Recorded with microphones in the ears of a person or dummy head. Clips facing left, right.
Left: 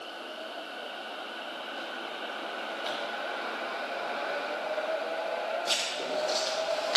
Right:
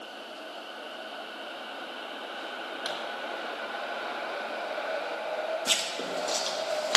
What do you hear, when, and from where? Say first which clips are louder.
2.9 s a pop: even; 70° right (ahead or behind), 3.5 m
5.7 s writing: left 1 dB; 65° right (ahead or behind), 1.8 m